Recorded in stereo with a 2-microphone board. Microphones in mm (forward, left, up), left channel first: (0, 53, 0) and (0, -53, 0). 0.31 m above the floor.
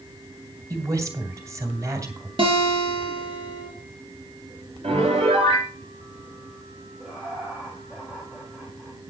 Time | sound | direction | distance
0.7 | a woman speaking | 30° right (ahead or behind) | 2 m
2.4 | a guitar | 55° right (ahead or behind) | 3.5 m
4.8 | a piano | 70° right (ahead or behind) | 5.5 m
7.0 | laughter | 5° right (ahead or behind) | 2.5 m